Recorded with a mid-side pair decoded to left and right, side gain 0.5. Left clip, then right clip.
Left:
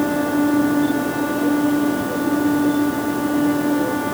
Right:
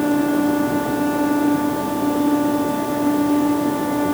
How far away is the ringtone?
No ringtone in this recording.